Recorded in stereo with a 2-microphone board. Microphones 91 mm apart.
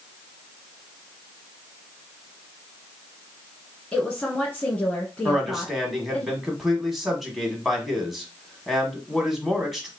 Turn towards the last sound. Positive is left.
turn(degrees=0)  # may be behind; listen again after turning